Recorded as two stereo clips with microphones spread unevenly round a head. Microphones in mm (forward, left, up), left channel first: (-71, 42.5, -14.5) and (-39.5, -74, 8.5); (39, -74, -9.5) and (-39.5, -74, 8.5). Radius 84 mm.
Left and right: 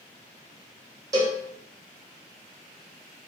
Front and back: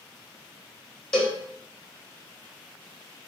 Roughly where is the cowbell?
Ahead right.